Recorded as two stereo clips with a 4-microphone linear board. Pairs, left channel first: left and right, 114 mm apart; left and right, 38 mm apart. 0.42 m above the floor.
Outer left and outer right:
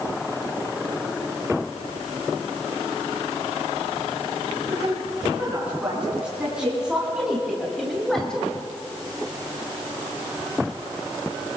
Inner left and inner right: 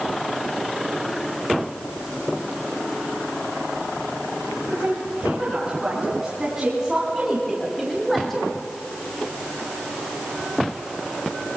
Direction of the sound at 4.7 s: 15° right (ahead or behind).